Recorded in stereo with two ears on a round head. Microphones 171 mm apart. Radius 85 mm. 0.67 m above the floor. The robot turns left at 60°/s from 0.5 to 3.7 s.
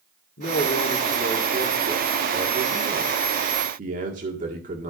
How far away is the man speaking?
About 1.9 m.